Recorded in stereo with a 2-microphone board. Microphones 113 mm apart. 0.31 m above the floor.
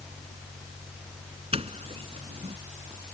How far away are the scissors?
I don't hear scissors.